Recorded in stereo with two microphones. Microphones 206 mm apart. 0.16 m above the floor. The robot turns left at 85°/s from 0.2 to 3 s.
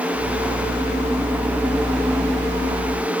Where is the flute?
No flute in this recording.